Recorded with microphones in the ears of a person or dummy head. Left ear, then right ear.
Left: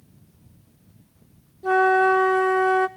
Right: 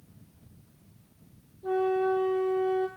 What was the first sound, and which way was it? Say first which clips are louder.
A flute: left 9 dB; 40° left (ahead or behind).